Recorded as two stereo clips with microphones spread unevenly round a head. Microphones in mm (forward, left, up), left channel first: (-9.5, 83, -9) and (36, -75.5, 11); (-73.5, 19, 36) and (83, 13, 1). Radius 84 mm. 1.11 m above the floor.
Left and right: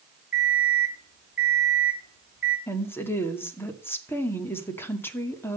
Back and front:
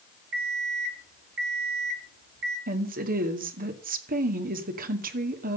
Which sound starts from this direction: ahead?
An alarm clock, at 0.3 s.